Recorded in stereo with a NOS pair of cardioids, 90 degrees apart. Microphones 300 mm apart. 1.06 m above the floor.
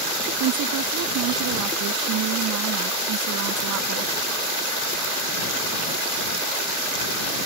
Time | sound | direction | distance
0.4 | a woman speaking | 65° right | ?